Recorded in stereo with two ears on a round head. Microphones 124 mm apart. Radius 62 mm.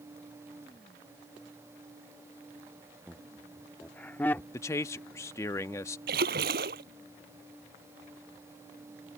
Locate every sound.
3.1 s laughter: 5° right (ahead or behind); by 4.4 s 15° left (ahead or behind)
4.5 s a man speaking: 20° left (ahead or behind)
6.1 s a splash: 80° right